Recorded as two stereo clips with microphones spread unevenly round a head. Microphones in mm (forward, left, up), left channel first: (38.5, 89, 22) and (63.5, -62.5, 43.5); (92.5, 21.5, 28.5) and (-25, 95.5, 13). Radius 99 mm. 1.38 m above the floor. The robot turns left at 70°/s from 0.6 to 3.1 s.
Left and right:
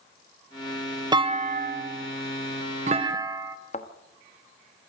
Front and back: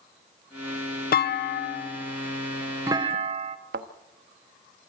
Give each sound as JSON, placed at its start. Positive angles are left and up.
{"t": 1.1, "sound": "a clunk", "azimuth_deg": -15, "distance_m": 0.8}
{"t": 3.7, "sound": "a thud", "azimuth_deg": 160, "distance_m": 1.1}